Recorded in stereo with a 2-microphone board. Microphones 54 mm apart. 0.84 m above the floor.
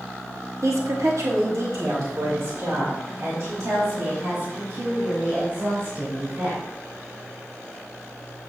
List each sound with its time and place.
0.6 s a woman speaking: 70° right (ahead or behind), 1.2 m; by 6.6 s 55° right (ahead or behind), 6.5 m